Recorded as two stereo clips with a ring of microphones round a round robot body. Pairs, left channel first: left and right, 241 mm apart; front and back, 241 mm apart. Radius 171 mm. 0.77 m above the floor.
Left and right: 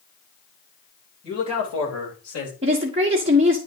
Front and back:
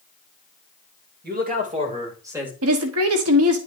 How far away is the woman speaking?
About 1.3 m.